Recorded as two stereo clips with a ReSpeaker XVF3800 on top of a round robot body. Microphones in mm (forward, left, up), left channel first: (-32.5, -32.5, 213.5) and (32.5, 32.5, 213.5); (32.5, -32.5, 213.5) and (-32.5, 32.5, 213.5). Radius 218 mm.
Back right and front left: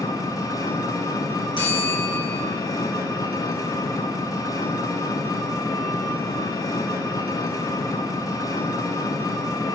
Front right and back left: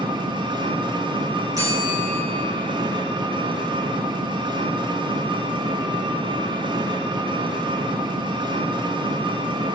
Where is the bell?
170° right, 3 m.